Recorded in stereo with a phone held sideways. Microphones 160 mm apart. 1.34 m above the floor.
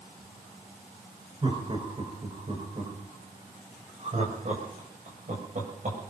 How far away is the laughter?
About 5.5 m.